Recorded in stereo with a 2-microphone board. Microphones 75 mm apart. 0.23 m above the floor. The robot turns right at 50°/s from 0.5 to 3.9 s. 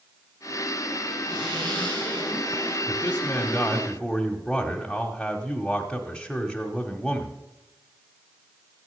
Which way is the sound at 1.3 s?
115° right.